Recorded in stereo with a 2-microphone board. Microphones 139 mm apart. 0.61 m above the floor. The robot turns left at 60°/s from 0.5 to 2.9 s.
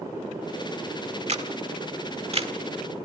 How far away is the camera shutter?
About 1.4 m.